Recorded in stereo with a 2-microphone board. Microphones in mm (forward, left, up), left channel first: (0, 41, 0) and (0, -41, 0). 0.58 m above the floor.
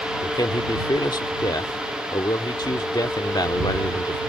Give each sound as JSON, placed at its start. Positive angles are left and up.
{"t": 0.2, "sound": "a man speaking", "side_deg": 55}